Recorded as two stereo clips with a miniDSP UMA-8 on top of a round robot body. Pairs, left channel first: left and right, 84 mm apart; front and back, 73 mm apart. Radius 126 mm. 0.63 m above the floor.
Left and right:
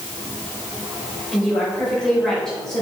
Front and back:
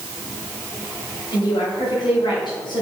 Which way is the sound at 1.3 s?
5° left.